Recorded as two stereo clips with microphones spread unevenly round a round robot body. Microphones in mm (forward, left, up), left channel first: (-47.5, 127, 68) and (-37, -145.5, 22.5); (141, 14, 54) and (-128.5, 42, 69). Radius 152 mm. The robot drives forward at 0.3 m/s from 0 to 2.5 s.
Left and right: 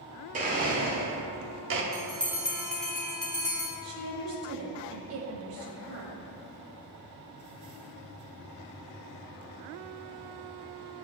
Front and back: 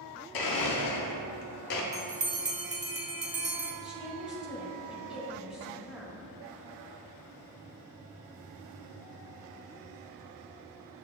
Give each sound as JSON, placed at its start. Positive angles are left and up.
{"t": 0.3, "sound": "a blender", "azimuth_deg": -20, "distance_m": 0.8}
{"t": 1.9, "sound": "a bell", "azimuth_deg": 150, "distance_m": 0.5}
{"t": 3.8, "sound": "a woman speaking", "azimuth_deg": -95, "distance_m": 1.3}